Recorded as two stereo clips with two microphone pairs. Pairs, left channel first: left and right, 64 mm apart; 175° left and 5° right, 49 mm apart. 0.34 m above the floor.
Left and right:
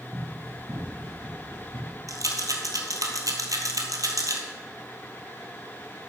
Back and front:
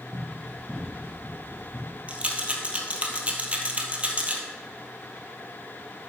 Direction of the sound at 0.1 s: 140° right.